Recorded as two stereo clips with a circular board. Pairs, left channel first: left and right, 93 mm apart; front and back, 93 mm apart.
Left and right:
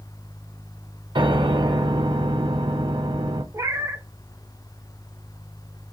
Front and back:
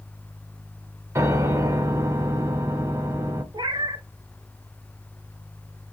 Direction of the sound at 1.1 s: 125° right.